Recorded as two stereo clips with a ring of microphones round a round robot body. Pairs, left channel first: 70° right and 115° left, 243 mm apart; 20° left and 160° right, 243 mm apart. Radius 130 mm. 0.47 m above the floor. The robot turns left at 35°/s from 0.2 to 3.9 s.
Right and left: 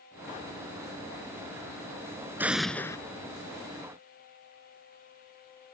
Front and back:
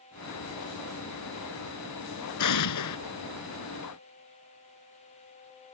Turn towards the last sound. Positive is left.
turn(degrees=-20)